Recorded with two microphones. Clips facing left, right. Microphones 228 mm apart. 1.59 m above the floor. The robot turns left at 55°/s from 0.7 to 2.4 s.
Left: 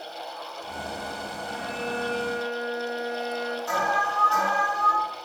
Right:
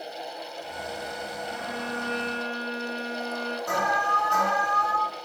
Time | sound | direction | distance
1.5 | a violin | 150° right | 1.9 m
3.7 | an alarm | 55° right (ahead or behind) | 3 m